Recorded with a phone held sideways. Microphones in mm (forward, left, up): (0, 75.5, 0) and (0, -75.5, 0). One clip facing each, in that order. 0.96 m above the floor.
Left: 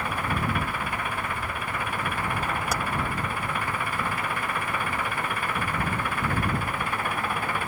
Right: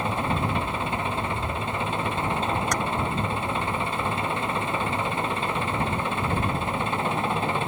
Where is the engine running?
25° right (ahead or behind).